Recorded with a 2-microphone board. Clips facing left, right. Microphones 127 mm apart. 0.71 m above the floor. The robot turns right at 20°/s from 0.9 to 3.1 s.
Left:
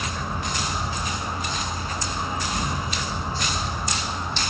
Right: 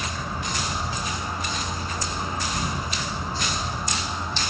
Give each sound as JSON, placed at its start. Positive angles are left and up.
{"t": 0.0, "sound": "an insect", "azimuth_deg": 45, "distance_m": 1.7}